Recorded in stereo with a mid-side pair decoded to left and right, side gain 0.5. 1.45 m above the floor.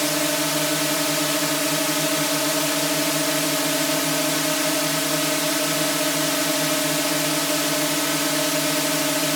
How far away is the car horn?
No car horn in this recording.